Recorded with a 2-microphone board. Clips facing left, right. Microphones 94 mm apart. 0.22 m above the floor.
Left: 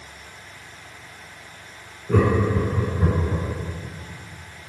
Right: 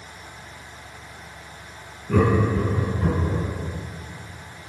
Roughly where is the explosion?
I don't hear an explosion.